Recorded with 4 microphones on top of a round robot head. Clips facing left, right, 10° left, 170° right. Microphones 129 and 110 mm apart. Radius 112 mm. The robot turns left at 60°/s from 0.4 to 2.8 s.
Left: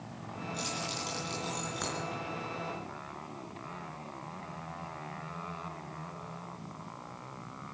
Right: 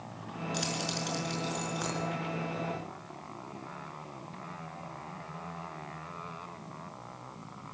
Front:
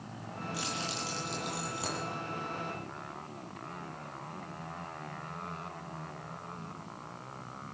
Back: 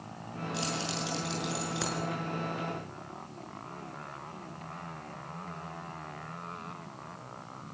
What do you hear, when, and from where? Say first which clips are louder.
0.5 s keys jangling: right 4 dB, back 4 dB; 100° right, 5.5 m; by 2.0 s 175° left, 5.5 m